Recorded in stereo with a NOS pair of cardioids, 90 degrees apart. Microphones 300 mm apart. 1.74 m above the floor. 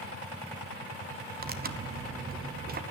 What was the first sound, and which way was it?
Tearing paper, 30° right.